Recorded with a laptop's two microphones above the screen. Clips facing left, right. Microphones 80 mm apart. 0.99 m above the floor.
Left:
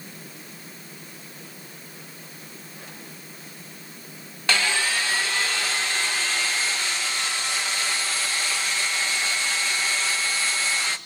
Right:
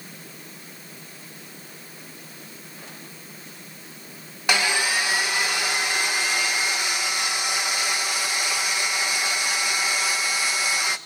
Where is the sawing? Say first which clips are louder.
Right 1 dB; 15° right (ahead or behind), 0.8 m.